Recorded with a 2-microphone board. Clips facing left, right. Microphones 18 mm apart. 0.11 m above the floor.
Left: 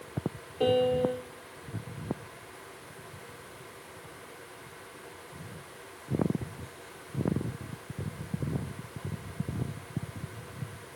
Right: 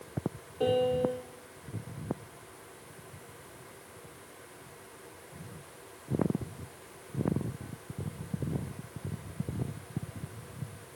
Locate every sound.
0.6 s a piano: 20° left (ahead or behind), 0.8 m